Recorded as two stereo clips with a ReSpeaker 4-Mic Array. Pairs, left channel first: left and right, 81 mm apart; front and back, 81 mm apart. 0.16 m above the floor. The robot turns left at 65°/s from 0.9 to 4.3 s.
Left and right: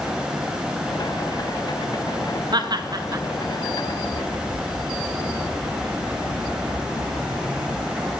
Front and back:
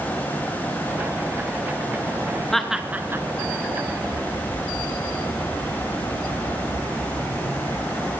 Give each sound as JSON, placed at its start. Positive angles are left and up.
{"t": 2.5, "sound": "laughter", "azimuth_deg": -85, "distance_m": 2.0}